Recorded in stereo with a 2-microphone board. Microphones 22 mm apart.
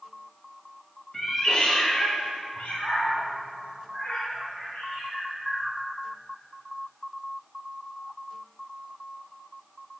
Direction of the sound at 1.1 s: 20° left (ahead or behind).